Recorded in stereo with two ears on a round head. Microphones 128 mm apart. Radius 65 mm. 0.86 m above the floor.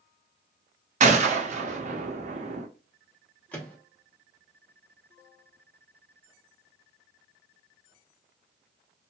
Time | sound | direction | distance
1.0 | a gunshot | 50° right (ahead or behind) | 0.7 m
3.5 | a microwave | 10° left (ahead or behind) | 0.9 m